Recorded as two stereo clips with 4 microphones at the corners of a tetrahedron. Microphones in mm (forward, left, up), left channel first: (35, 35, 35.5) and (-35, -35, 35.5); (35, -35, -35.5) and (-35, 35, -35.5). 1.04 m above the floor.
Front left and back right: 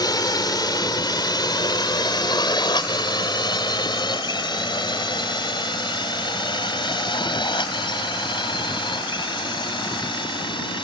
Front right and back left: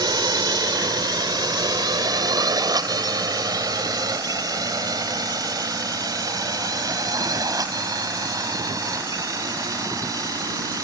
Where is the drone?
90° left; by 10.8 s 80° left.